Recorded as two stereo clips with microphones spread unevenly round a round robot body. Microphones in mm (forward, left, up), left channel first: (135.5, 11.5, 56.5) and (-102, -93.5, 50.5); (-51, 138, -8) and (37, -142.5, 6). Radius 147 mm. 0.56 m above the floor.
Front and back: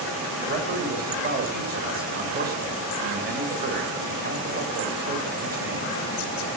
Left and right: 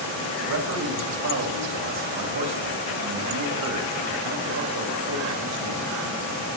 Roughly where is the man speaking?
Right.